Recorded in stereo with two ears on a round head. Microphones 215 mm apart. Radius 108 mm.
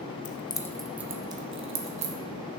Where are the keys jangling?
30° left (ahead or behind), 0.5 m; by 2.1 s 30° right (ahead or behind), 1.2 m.